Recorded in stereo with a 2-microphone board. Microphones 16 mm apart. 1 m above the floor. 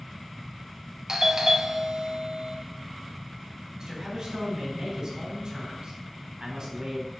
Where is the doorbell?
45° right (ahead or behind), 0.9 m.